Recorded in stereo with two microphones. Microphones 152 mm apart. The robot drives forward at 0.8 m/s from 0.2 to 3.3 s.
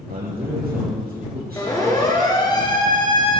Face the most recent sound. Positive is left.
turn(degrees=35)  # may be behind; listen again after turning